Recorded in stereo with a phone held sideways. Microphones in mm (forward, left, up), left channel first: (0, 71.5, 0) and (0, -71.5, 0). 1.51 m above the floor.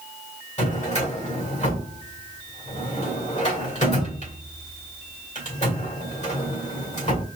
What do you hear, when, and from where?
0.6 s a drawer: 55° left (ahead or behind), 2 m